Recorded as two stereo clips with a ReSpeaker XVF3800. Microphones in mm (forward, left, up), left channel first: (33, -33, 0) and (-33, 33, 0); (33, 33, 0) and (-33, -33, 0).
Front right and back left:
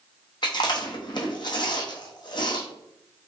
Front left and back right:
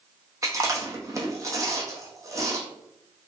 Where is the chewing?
80° right, 0.7 m.